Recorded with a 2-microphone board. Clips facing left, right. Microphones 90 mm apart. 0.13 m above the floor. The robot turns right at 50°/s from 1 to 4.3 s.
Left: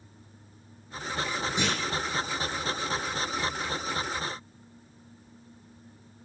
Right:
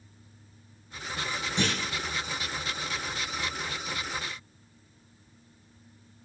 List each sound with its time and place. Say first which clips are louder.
1.6 s a clunk: right 1 dB; 10° left (ahead or behind), 1.8 m; by 1.8 s 20° left (ahead or behind), 1.8 m